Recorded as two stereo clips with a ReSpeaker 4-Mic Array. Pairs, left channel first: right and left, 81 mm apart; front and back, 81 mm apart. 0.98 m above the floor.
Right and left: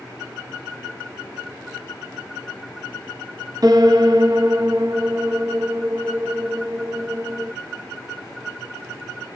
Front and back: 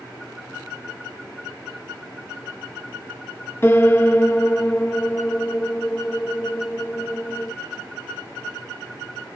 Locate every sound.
3.6 s a piano: 55° left, 0.9 m